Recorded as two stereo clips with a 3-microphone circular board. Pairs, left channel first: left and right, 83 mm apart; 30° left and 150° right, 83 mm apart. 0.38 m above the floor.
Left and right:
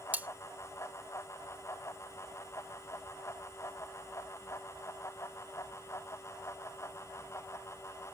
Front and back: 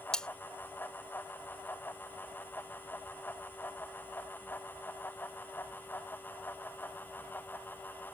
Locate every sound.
0.1 s cutlery clinking: 40° right